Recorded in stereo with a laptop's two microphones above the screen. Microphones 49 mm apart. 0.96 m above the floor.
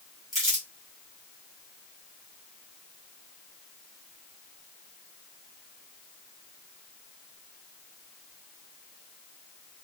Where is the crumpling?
Centre (ahead or behind), 2.5 m.